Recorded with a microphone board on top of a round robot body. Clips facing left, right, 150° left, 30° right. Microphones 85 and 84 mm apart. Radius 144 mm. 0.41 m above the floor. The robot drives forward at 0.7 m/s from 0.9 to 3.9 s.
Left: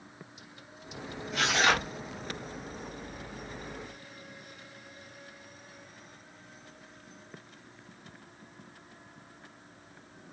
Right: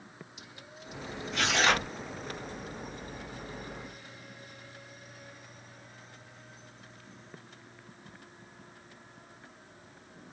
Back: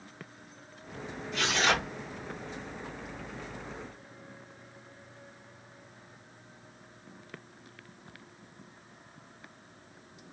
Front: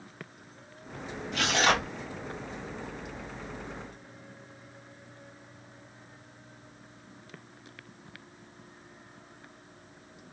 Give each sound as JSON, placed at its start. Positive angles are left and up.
{"t": 1.3, "sound": "tearing paper", "azimuth_deg": 5, "distance_m": 1.7}